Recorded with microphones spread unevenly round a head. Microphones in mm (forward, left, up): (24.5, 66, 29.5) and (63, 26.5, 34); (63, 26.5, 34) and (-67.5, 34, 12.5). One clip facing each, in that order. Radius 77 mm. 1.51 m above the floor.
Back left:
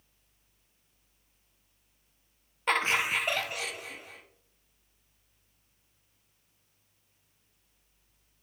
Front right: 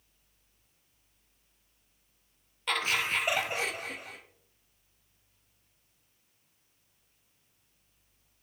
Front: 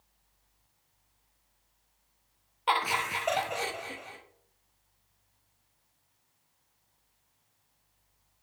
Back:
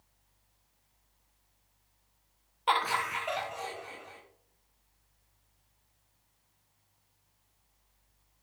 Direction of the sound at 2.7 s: 85° left.